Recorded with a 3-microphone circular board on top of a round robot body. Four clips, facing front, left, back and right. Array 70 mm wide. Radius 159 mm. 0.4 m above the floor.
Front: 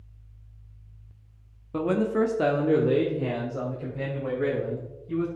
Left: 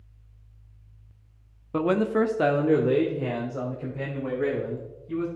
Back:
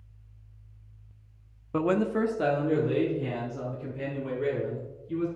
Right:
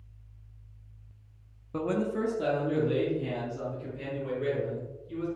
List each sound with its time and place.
1.7 s a man speaking: 130° left, 1.0 m; by 5.3 s 45° left, 4 m